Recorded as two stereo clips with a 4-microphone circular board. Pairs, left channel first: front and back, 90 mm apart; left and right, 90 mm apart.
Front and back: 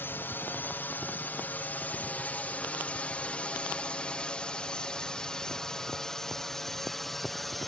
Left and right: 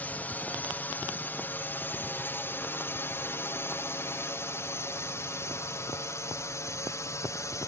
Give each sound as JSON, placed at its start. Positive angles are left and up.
{"t": 0.0, "sound": "a drone", "azimuth_deg": 35}